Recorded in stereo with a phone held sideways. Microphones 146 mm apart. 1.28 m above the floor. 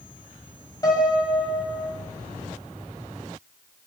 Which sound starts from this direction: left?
A piano, at 0.8 s.